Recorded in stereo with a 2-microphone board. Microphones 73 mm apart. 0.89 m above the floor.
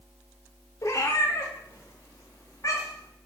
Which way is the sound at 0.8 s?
40° left (ahead or behind).